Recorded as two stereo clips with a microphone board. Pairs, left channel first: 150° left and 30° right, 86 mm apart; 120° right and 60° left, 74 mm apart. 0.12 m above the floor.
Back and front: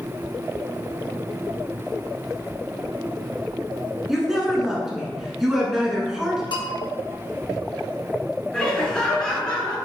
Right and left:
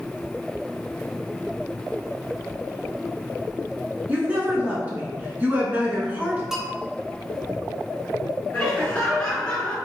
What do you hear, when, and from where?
4.1 s a woman speaking: 50° left, 1.3 m
6.5 s a bell: 145° left, 1.0 m
8.5 s laughter: 160° right, 1.3 m